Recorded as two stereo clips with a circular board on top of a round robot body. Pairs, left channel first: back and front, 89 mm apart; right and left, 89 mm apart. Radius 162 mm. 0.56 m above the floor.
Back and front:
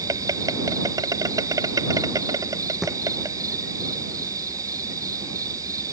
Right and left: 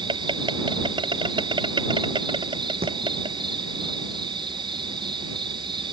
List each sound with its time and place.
0.0 s an insect: 55° left
2.8 s a thud: 85° left